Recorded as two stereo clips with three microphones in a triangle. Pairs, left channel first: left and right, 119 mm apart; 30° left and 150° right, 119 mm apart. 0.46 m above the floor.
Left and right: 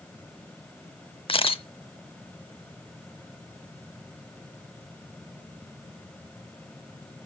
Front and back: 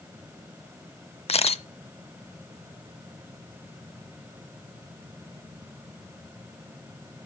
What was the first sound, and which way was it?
A camera shutter, 55° left.